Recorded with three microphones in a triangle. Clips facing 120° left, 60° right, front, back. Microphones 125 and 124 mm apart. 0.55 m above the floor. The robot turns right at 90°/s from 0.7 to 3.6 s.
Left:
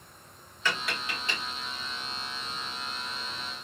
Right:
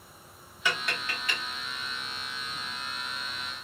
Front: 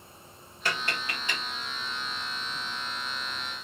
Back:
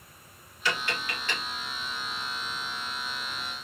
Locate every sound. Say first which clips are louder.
0.7 s tapping: even, back 1 dB; 15° left, 1.4 m; by 1.4 s 80° left, 1.4 m